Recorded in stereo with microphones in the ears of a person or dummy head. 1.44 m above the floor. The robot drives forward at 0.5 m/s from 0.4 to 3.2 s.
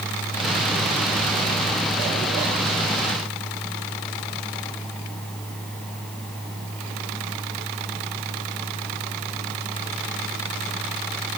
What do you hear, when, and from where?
Only background noise.